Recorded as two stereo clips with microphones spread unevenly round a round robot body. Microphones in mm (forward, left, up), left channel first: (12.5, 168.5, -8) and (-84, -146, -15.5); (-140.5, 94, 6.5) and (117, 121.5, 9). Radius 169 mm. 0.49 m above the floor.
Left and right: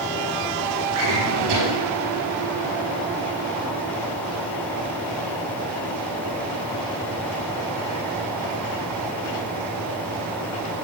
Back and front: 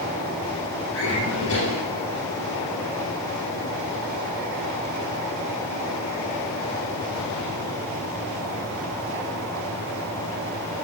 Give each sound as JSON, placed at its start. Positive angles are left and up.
{"t": 0.9, "sound": "a drawer", "azimuth_deg": -115, "distance_m": 4.0}